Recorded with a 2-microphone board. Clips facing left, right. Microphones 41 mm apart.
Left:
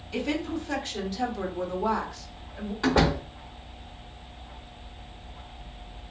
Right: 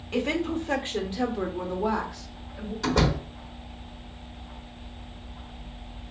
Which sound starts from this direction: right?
A woman speaking, at 0.1 s.